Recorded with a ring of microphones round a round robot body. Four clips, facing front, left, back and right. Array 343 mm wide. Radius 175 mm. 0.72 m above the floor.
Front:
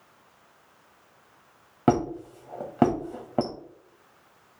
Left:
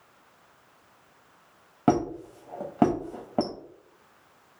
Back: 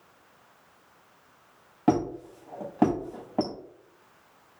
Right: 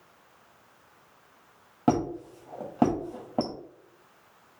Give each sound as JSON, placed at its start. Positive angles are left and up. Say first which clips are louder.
{"t": 1.9, "sound": "a squeak", "louder": "left 2 dB, front 1 dB", "azimuth_deg": 25, "distance_m": 0.5}